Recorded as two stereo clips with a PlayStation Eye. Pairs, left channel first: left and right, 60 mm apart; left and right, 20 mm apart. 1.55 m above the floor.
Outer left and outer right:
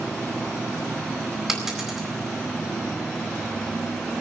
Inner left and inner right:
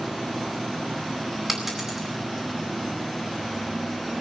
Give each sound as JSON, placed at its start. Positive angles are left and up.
{"t": 1.5, "sound": "a dropped coin", "side_deg": -10, "distance_m": 4.5}